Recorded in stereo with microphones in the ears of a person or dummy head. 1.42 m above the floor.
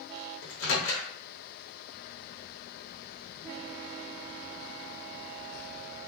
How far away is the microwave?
About 0.9 m.